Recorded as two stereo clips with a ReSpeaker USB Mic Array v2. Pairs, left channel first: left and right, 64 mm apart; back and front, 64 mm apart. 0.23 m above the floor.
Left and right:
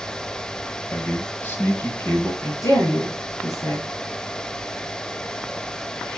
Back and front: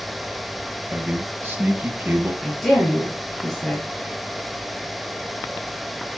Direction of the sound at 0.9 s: 45° left.